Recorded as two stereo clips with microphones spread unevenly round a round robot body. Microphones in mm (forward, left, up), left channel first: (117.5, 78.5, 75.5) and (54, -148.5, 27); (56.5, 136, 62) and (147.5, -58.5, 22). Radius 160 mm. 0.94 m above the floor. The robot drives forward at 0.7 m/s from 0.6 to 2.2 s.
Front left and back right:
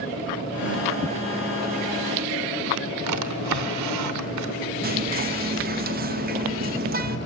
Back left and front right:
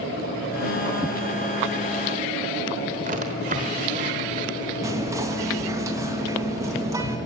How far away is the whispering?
About 1.5 m.